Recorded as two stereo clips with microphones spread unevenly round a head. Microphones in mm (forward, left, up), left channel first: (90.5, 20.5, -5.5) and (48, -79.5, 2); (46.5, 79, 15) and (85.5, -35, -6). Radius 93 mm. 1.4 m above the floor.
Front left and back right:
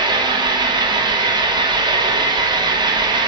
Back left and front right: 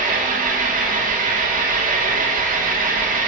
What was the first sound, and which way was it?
An engine running, 65° right.